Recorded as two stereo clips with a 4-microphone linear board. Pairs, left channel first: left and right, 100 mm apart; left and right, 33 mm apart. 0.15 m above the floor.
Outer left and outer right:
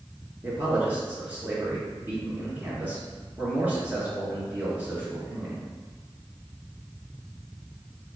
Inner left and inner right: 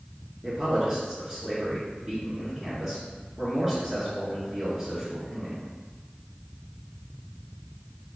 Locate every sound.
0.4 s a man speaking: 20° right (ahead or behind), 1.8 m